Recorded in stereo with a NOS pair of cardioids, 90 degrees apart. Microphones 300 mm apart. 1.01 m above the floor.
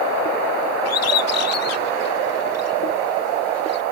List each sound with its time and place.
0.8 s a bird: 55° left